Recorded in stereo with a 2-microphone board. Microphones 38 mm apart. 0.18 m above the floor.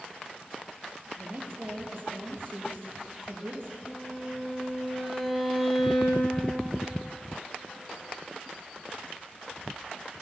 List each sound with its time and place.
1.2 s a woman speaking: 65° right (ahead or behind), 4.5 m
3.9 s a violin: centre (ahead or behind), 4 m